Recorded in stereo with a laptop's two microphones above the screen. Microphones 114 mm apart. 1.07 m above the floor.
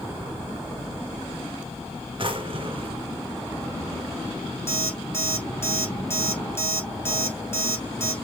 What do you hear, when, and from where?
2.2 s a drawer: 50° right (ahead or behind), 1.2 m
4.7 s an alarm clock: 20° left (ahead or behind), 3 m